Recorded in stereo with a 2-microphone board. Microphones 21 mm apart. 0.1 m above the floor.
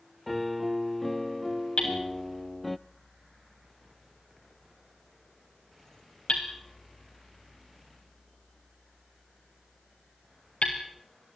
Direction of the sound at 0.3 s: 10° left (ahead or behind).